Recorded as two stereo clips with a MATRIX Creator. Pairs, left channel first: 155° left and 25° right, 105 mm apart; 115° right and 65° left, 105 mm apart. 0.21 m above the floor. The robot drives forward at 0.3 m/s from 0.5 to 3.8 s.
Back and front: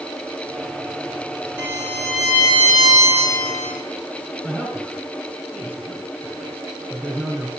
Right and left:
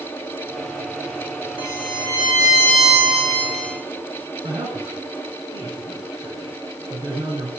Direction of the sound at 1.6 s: 90° left.